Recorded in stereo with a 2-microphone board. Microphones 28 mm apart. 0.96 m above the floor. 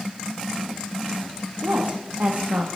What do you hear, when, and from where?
1.6 s a woman speaking: 75° right (ahead or behind), 0.9 m